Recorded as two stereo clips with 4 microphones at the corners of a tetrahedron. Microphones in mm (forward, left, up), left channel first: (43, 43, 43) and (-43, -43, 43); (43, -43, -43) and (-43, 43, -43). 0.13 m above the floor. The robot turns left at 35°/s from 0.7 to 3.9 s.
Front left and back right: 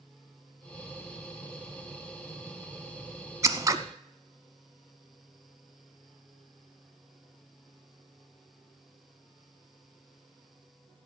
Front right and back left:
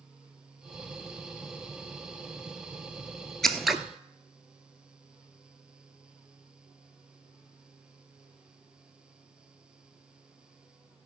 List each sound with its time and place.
3.4 s scissors: 130° right, 0.9 m; by 3.8 s 140° right, 0.9 m